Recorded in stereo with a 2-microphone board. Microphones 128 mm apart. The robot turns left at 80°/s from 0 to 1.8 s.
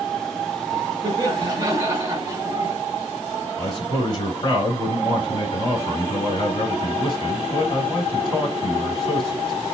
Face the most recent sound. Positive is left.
turn(degrees=45)  # may be behind; listen again after turning